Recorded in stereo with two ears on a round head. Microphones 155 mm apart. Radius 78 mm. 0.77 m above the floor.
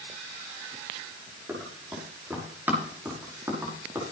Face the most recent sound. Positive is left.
turn(degrees=-15)  # may be behind; listen again after turning